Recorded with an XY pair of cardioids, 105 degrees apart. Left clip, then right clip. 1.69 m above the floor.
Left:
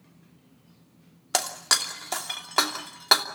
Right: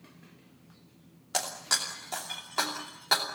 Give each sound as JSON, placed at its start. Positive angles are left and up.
{"t": 1.3, "sound": "breaking glass", "azimuth_deg": 65, "distance_m": 2.5}